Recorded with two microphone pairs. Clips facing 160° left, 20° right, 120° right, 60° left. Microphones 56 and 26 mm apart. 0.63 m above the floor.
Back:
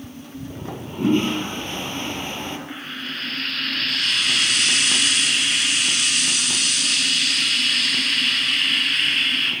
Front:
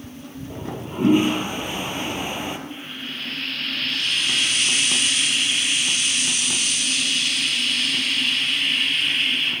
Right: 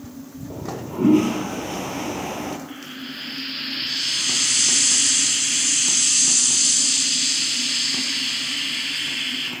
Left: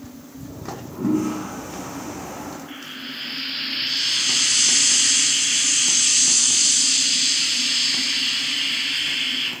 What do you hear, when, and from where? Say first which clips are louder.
0.5 s a toilet flushing: front 3 dB, right 4 dB; 100° right, 4.5 m
2.7 s frying: back 2 dB, left 1 dB; 140° left, 8.5 m